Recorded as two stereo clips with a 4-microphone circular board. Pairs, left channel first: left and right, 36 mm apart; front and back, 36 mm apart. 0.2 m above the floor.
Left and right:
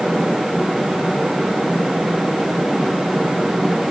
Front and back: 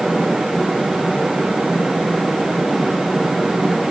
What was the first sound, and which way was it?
Only background noise.